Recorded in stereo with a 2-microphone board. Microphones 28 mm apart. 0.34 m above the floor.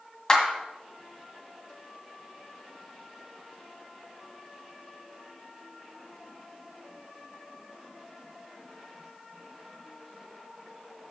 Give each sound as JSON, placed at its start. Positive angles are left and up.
{"t": 0.3, "sound": "a clap", "side_deg": 15, "distance_m": 1.8}